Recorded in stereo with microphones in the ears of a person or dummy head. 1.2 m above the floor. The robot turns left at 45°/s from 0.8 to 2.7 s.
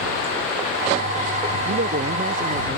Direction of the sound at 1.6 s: 90° right.